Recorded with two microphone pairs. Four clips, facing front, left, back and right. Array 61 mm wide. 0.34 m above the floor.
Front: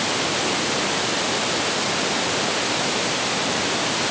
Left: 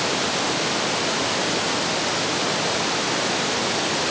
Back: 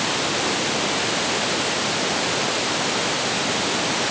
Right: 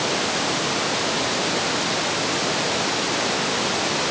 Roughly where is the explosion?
No explosion in this recording.